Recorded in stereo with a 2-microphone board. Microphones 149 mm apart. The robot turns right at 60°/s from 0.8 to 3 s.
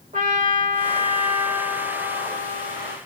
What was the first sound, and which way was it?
A trumpet, 65° right.